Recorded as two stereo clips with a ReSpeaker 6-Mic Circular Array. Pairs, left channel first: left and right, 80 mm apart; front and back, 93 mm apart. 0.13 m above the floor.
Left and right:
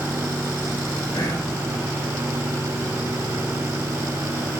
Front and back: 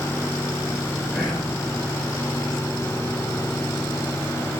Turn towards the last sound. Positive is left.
turn(degrees=70)